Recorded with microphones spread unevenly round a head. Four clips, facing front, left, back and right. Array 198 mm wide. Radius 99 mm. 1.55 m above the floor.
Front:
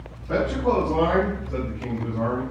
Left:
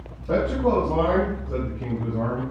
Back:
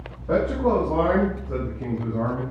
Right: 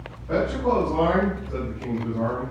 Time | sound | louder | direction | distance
0.3 | a man speaking | left 1 dB, back 1 dB | 150° left | 6 m